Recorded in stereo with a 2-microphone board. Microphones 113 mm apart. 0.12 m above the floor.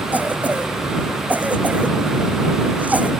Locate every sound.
0.1 s a cough: 15° right (ahead or behind)